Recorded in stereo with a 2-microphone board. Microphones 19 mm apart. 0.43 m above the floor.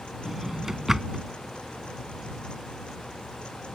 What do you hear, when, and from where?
0.2 s a drawer: 20° right (ahead or behind)